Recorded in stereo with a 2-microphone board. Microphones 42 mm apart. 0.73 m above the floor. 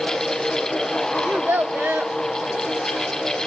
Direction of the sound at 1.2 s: 45° right (ahead or behind).